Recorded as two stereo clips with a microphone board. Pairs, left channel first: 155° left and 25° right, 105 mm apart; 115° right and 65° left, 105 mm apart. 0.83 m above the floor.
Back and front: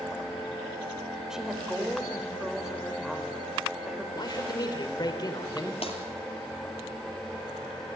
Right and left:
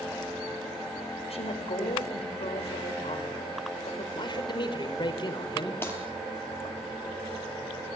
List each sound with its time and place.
1.3 s a woman speaking: 105° right, 4 m
4.1 s a man speaking: 155° right, 3 m
5.8 s breaking glass: straight behind, 4.5 m